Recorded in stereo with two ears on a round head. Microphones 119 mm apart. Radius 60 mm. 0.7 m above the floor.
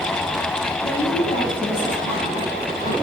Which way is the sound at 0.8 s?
30° left (ahead or behind).